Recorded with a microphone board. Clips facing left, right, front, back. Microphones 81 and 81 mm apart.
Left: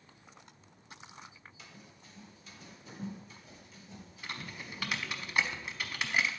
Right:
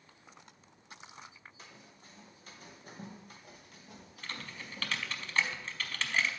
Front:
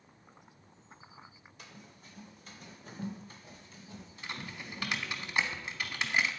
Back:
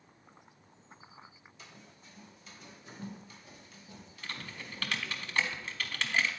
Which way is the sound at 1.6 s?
40° right.